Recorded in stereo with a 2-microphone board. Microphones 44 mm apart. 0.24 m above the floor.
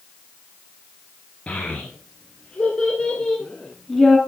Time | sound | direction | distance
1.5 | a child speaking | 25° left (ahead or behind) | 2.5 m